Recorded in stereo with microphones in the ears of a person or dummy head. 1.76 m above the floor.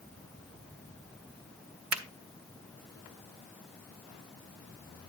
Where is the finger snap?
45° right (ahead or behind), 0.8 m.